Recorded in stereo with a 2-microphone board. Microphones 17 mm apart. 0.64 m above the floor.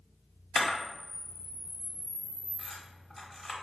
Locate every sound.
0.6 s a camera shutter: 15° left (ahead or behind), 1.1 m